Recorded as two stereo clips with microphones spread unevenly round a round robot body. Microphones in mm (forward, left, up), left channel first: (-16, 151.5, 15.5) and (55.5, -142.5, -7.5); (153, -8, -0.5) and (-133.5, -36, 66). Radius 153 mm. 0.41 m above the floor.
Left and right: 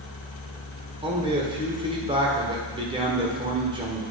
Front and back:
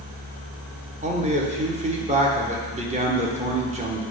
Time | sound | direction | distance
1.0 | a man speaking | 110° right | 1.3 m